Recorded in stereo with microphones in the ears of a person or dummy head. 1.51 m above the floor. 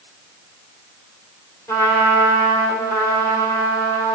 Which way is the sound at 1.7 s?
15° left (ahead or behind).